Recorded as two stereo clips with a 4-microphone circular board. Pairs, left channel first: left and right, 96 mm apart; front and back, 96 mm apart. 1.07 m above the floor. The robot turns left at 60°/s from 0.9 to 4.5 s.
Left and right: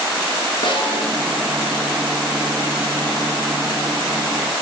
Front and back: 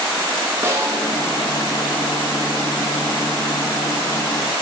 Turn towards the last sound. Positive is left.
turn(degrees=-100)